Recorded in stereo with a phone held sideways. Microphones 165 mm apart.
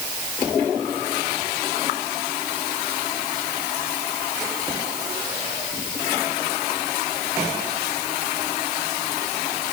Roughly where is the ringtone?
No ringtone in this recording.